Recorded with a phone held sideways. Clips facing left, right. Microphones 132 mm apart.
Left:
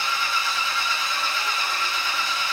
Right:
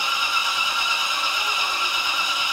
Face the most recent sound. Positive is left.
turn(degrees=-15)  # may be behind; listen again after turning